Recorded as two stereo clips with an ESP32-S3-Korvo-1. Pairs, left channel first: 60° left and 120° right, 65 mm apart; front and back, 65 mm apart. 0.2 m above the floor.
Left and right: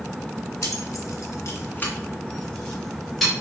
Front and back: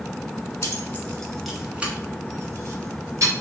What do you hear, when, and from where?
0.6 s keys jangling: 40° left, 1.2 m; by 3.3 s 150° left, 2.5 m